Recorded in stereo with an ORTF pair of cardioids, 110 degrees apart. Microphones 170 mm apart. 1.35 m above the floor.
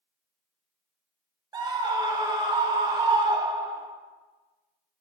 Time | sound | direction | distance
1.5 | a scream | 25° right | 1.5 m